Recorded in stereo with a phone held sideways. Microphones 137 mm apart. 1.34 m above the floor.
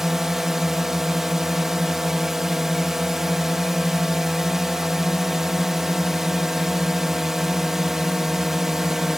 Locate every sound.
0.0 s a drone: 5° right (ahead or behind)